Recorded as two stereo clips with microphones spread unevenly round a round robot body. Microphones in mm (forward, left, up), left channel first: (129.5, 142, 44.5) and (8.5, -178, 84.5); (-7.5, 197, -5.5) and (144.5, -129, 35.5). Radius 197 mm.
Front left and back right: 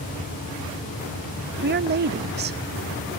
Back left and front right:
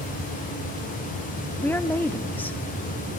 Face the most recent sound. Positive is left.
turn(degrees=-170)